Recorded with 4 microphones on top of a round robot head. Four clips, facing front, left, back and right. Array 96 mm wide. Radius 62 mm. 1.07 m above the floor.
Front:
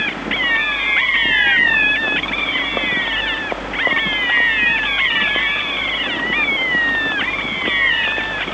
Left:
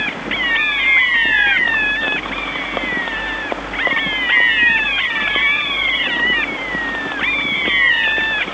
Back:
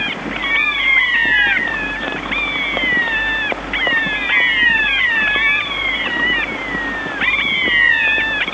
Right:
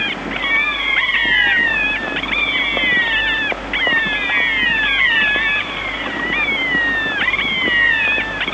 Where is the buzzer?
No buzzer in this recording.